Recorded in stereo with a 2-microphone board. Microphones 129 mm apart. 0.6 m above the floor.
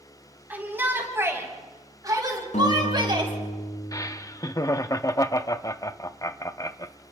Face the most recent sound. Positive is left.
turn(degrees=25)  # may be behind; listen again after turning